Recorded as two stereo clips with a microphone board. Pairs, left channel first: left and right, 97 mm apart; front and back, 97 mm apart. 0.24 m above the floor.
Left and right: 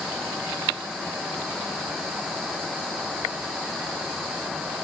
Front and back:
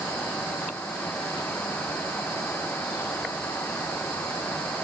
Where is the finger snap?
I don't hear a finger snap.